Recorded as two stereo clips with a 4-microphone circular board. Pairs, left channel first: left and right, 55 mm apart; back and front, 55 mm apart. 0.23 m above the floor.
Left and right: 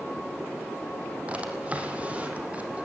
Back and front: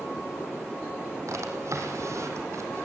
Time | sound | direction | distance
1.3 | a drawer | 25° right | 3.5 m